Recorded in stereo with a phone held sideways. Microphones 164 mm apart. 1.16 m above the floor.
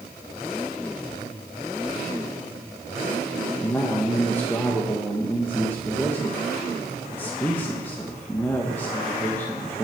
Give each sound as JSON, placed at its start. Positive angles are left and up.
{"t": 3.6, "sound": "a man speaking", "side_deg": 10, "distance_m": 1.3}